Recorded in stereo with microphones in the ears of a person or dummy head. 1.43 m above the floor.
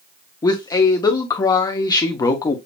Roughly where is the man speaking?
Left.